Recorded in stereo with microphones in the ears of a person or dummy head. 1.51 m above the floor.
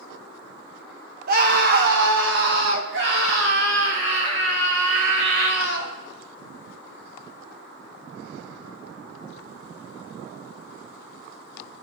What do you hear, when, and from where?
1.3 s a scream: 50° right (ahead or behind), 2.5 m; by 5.9 s 75° right (ahead or behind), 7 m